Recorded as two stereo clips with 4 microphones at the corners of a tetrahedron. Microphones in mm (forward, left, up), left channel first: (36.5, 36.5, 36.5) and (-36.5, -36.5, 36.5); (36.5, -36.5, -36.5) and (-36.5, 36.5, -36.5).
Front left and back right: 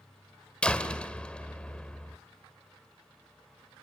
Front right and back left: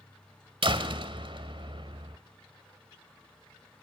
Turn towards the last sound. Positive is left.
turn(degrees=125)